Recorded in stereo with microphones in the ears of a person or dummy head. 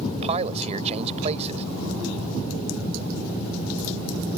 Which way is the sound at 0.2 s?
35° right (ahead or behind).